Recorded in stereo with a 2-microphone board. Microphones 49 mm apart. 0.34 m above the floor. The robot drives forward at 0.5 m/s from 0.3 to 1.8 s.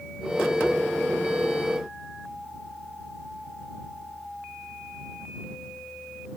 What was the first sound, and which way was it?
Only background noise.